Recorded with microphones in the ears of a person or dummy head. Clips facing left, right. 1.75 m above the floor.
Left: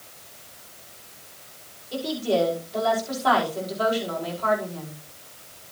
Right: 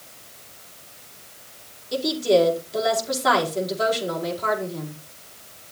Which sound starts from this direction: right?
A woman speaking, at 1.9 s.